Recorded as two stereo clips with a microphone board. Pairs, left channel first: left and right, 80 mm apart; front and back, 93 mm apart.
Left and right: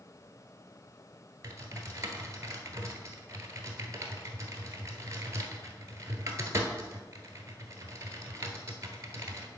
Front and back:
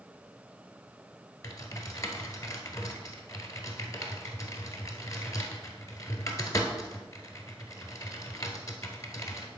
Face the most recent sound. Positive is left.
turn(degrees=-45)